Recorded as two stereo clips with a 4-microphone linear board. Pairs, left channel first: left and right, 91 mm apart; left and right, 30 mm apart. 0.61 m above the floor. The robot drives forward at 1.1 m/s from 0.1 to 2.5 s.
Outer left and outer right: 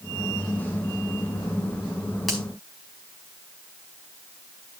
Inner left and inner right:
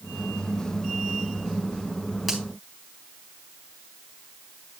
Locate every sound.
2.3 s a finger snap: centre (ahead or behind), 4 m